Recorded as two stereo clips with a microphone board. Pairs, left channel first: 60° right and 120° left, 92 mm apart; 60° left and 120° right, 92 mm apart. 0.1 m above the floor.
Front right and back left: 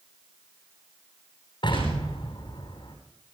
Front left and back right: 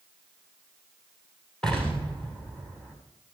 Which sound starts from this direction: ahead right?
An explosion, at 1.6 s.